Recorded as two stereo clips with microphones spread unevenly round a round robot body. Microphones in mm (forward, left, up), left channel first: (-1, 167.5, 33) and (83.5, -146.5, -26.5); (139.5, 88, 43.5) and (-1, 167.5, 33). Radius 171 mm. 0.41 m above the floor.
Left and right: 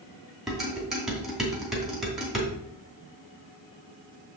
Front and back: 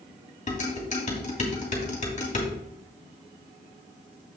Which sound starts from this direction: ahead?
Dishes clattering, at 0.5 s.